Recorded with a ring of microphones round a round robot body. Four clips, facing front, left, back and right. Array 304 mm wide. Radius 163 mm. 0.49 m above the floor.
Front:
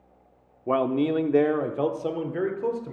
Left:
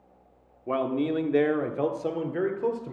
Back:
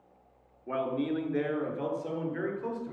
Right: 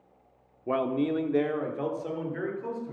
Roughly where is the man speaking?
Ahead.